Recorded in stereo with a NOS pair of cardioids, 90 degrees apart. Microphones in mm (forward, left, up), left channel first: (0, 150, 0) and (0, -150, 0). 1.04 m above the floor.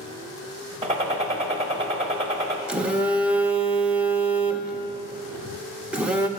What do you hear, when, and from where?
0.8 s a gunshot: 20° right, 1.2 m
2.7 s a phone buzzing: 5° right, 0.7 m